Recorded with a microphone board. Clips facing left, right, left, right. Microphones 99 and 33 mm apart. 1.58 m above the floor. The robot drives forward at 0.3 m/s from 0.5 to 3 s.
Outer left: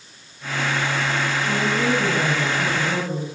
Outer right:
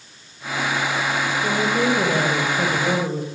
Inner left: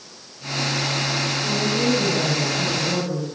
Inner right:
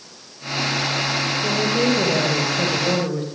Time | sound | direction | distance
1.4 | a woman speaking | 65° right (ahead or behind) | 9.5 m